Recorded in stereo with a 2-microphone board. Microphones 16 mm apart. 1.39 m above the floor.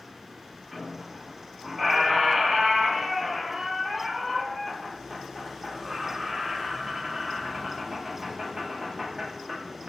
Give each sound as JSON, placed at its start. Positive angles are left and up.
{"t": 0.7, "sound": "a squeak", "side_deg": -15, "distance_m": 0.8}